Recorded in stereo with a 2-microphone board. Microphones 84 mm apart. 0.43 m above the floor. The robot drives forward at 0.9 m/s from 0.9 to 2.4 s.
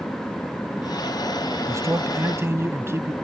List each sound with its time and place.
1.7 s a man speaking: 35° right (ahead or behind); by 3.1 s 30° right (ahead or behind)